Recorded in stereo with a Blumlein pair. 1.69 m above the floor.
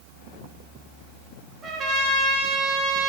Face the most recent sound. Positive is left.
turn(degrees=-20)